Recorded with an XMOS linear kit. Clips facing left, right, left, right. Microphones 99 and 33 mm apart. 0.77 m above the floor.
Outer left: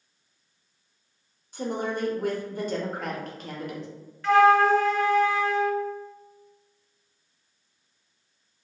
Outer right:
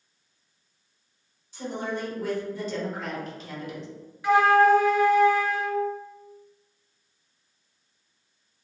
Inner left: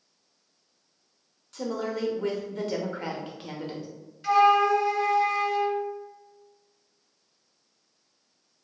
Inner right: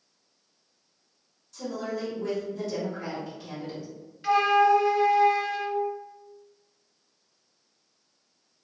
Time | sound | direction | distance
1.5 | a woman speaking | 55° left (ahead or behind) | 0.7 m
4.2 | a flute | 15° right (ahead or behind) | 0.5 m